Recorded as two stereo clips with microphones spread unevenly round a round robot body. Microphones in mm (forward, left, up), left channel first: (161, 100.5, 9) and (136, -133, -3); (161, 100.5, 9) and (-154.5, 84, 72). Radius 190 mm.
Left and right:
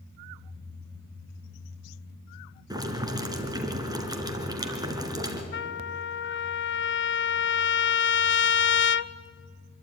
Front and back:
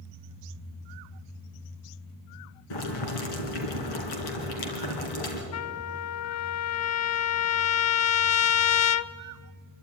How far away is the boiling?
About 3 m.